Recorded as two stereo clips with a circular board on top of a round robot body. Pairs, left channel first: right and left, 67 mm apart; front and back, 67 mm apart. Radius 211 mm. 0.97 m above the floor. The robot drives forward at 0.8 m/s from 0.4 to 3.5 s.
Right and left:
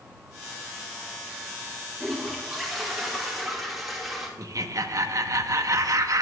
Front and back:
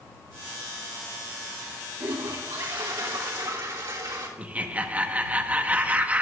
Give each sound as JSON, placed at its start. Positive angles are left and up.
{"t": 2.0, "sound": "a toilet flushing", "azimuth_deg": 180, "distance_m": 1.6}
{"t": 4.4, "sound": "laughter", "azimuth_deg": 115, "distance_m": 1.2}